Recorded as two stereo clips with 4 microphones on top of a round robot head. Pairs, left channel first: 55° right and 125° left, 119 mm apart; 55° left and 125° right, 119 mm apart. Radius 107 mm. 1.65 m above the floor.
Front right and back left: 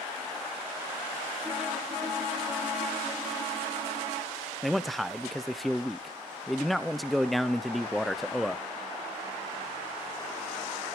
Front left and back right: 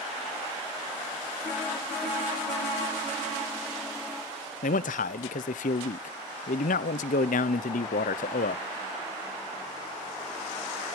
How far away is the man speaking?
About 0.6 m.